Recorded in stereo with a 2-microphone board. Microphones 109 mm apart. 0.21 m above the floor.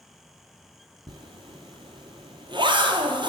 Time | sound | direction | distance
1.1 | a zipper | 50° right (ahead or behind) | 0.8 m